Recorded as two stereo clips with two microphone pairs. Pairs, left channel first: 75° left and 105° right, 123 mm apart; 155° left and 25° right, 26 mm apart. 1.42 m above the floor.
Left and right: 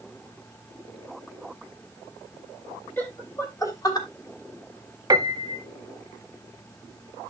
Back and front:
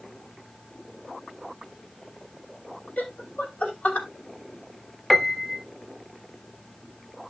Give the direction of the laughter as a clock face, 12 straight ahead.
7 o'clock.